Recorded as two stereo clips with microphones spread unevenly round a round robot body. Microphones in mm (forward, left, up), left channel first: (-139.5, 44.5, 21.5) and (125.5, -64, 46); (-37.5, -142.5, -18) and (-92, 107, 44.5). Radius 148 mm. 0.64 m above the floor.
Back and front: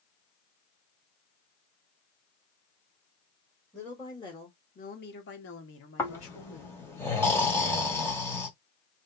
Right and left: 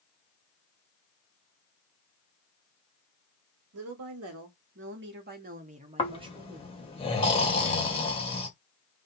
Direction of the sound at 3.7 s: 80° left.